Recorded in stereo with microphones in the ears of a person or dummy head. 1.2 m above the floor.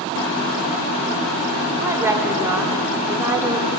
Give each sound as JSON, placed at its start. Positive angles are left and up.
{"t": 1.8, "sound": "a woman speaking", "side_deg": -10, "distance_m": 2.5}